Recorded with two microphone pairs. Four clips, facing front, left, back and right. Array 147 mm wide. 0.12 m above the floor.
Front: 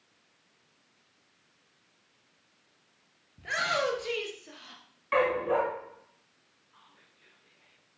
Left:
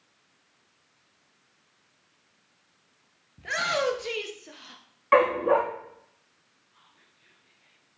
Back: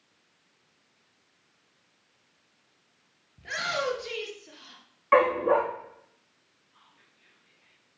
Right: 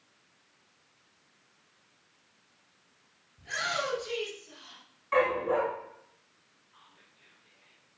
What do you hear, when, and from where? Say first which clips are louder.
3.4 s a shout: left 6 dB, front 1 dB; 80° left, 2 m
5.1 s a dog barking: left 6 dB, back 5 dB; 125° left, 5 m
6.7 s whispering: right 2 dB, front 1 dB; 35° right, 5 m